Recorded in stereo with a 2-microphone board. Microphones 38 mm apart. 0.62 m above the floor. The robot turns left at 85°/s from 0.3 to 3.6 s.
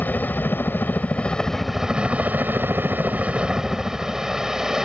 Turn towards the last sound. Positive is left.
turn(degrees=-160)